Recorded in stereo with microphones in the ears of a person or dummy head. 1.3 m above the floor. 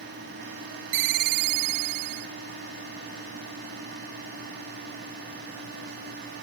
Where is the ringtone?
70° right (ahead or behind).